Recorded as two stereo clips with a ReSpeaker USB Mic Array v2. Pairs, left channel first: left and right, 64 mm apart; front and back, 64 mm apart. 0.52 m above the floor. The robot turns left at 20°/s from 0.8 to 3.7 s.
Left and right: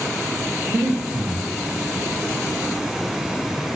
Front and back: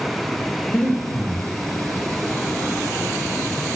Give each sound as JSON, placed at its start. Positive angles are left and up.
{"t": 0.7, "sound": "breathing", "azimuth_deg": -50, "distance_m": 0.8}